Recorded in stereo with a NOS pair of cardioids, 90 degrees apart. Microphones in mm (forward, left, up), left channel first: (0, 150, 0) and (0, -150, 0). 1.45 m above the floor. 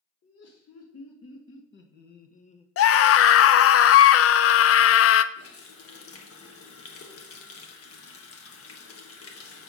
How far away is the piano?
No piano in this recording.